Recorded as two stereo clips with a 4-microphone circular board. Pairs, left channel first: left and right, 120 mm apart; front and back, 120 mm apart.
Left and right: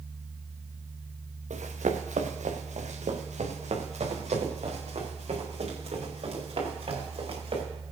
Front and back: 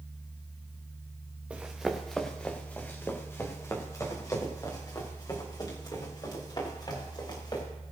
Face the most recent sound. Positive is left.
turn(degrees=-50)